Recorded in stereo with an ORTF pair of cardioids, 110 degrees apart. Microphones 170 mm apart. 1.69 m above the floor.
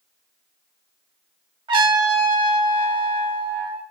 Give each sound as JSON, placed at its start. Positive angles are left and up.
{"t": 1.7, "sound": "a trumpet", "azimuth_deg": -30, "distance_m": 2.5}